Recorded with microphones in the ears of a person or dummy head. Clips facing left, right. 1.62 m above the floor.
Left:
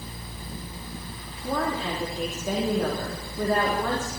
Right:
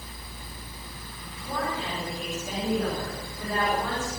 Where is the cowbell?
No cowbell in this recording.